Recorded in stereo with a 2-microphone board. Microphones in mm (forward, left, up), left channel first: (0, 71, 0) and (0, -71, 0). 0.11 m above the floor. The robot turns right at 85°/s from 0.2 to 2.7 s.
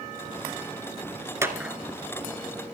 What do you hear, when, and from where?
1.4 s a clap: 20° right (ahead or behind), 1.3 m; by 1.8 s centre (ahead or behind), 1.3 m